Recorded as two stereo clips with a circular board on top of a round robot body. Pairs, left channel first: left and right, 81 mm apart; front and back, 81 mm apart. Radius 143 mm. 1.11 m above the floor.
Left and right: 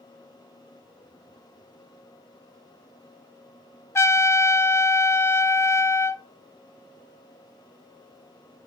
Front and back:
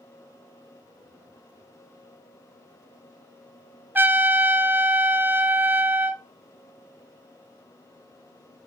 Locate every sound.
4.0 s a trumpet: 125° left, 0.9 m